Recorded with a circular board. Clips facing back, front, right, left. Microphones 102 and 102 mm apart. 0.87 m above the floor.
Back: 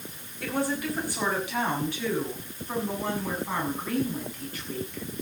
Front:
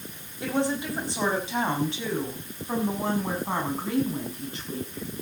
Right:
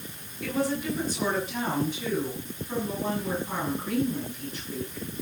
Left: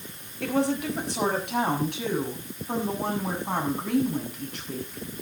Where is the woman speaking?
70° left, 5.5 m; by 5.0 s 65° left, 8 m.